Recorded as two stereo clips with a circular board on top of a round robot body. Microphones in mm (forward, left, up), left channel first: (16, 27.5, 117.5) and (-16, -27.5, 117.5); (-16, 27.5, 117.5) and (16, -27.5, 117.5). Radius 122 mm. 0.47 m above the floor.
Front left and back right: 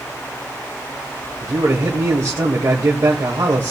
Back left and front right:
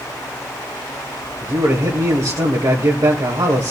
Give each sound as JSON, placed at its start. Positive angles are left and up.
{"t": 1.4, "sound": "a man speaking", "azimuth_deg": -75, "distance_m": 2.0}